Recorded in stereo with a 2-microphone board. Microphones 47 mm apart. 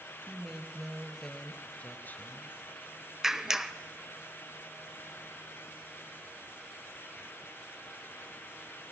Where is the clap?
10° right (ahead or behind), 0.8 m.